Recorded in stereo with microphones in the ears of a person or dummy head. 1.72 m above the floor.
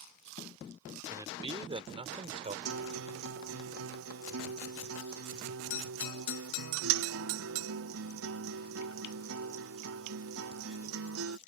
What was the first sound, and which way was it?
A man speaking, 15° right (ahead or behind).